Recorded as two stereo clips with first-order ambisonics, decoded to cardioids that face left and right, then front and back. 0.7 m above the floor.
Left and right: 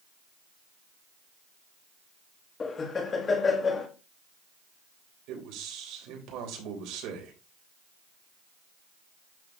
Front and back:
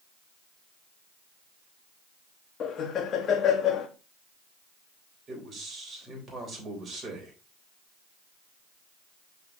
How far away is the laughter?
About 1.3 m.